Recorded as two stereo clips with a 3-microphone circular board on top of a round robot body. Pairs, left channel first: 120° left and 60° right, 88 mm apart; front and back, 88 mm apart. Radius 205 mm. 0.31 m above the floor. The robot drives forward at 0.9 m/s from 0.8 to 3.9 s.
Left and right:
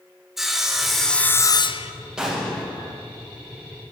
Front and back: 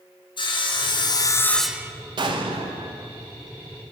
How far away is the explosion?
About 0.5 m.